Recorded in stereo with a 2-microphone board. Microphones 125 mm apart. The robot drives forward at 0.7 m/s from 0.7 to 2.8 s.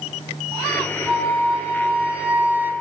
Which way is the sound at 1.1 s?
5° right (ahead or behind).